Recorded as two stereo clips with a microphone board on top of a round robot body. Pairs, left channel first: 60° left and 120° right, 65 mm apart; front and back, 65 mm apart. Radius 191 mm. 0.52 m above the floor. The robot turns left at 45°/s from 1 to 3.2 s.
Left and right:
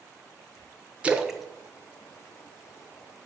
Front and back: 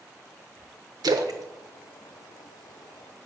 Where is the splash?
165° left, 0.9 m; by 3.1 s 75° left, 0.9 m.